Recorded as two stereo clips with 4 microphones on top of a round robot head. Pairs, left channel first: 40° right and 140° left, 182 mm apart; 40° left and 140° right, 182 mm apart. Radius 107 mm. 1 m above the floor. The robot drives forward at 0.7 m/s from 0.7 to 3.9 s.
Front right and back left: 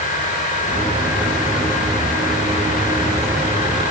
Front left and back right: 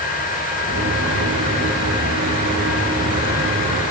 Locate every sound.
Only background noise.